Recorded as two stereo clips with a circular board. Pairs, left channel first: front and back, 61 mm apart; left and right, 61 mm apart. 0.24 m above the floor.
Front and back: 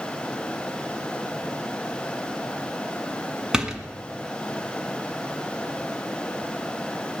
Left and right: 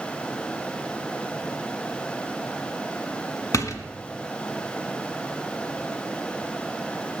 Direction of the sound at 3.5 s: 100° left.